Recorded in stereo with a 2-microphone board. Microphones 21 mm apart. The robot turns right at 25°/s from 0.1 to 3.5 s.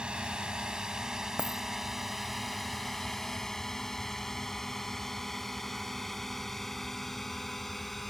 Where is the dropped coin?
85° right; by 1.6 s 80° right.